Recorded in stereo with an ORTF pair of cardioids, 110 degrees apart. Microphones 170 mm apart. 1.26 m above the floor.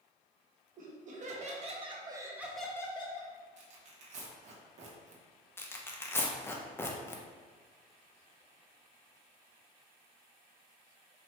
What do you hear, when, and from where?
0.8 s laughter: 50° right, 1.5 m; by 3.3 s 45° left, 0.7 m
3.6 s tearing paper: 45° right, 1.0 m
5.6 s tearing paper: 15° left, 0.6 m